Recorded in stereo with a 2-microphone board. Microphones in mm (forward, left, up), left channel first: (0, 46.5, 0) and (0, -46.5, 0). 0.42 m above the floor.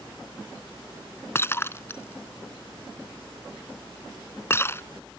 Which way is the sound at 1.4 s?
25° left (ahead or behind).